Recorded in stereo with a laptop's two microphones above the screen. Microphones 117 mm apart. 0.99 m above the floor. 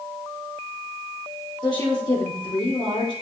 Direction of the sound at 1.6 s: 35° left (ahead or behind).